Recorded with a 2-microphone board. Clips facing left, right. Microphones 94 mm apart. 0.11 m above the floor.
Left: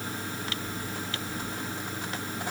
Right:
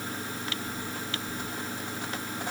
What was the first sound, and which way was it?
Only background noise.